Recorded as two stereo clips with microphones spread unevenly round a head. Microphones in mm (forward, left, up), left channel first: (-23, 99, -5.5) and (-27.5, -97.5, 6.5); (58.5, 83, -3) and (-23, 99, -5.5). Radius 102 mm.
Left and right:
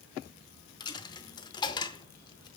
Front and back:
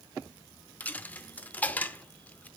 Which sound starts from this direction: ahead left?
A dropped coin, at 0.8 s.